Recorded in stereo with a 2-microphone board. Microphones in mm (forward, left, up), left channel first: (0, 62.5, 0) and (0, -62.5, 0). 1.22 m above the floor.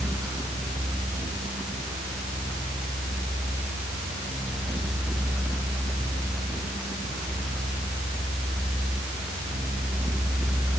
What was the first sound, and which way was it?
Only background noise.